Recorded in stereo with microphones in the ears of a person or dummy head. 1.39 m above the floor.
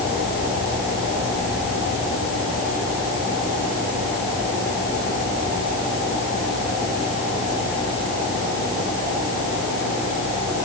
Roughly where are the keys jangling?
No keys jangling in this recording.